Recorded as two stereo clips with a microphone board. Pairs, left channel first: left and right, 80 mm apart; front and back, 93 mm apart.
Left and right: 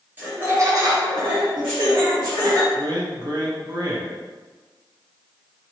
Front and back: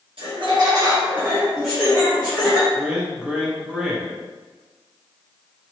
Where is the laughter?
155° right, 0.9 m; by 2.6 s 65° right, 1.2 m.